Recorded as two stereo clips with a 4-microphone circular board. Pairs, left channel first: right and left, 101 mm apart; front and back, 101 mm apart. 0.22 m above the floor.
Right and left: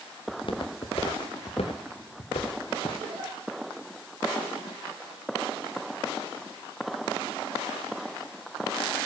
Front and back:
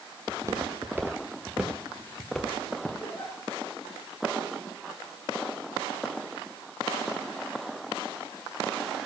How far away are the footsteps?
About 2.5 m.